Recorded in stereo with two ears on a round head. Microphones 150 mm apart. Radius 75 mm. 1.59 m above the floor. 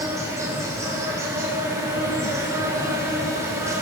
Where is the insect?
20° right (ahead or behind), 9 m.